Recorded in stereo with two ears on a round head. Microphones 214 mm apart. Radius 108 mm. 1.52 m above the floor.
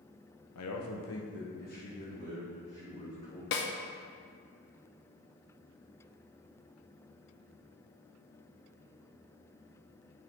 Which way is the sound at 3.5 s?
45° left (ahead or behind).